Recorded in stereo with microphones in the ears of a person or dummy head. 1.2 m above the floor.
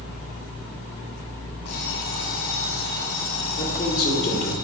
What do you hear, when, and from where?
1.6 s an alarm clock: 80° left, 3.5 m
3.6 s a man speaking: 50° left (ahead or behind), 4 m